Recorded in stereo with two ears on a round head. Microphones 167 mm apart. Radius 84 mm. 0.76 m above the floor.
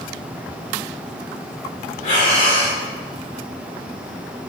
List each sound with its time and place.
2.0 s breathing: 50° left (ahead or behind), 3 m